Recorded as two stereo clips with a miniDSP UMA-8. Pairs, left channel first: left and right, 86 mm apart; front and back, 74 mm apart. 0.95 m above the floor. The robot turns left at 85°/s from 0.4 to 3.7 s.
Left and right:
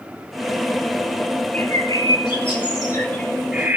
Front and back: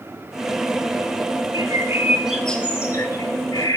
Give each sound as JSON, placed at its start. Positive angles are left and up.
{"t": 1.5, "sound": "a bird", "azimuth_deg": 160, "distance_m": 3.0}